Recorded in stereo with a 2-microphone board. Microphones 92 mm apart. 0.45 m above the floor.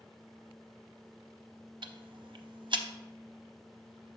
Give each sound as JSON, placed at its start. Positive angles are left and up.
{"t": 1.8, "sound": "ticking", "side_deg": -65, "distance_m": 0.5}